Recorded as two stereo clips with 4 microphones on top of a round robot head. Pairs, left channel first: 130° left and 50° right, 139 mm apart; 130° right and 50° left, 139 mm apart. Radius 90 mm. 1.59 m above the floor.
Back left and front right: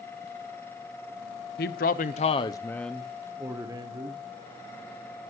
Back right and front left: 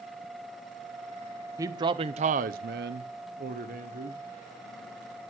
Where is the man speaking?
115° left, 0.7 m; by 4.2 s 10° left, 1.1 m.